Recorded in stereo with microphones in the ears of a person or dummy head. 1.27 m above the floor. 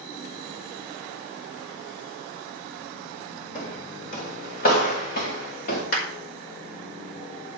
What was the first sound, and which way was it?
Footsteps, 40° left (ahead or behind).